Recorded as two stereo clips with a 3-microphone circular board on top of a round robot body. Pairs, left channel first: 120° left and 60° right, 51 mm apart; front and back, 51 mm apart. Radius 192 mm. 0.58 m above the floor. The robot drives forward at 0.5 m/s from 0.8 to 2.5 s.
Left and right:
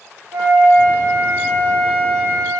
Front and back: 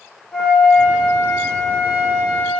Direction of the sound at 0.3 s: 85° right.